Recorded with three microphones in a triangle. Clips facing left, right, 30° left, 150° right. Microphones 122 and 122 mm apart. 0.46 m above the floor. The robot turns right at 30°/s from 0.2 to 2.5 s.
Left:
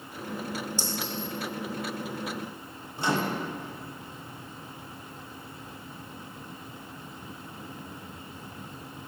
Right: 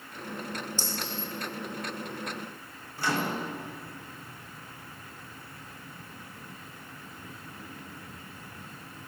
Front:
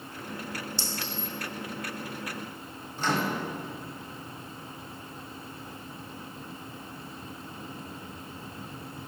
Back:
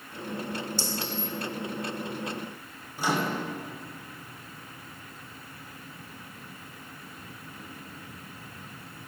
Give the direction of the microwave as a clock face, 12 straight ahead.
7 o'clock.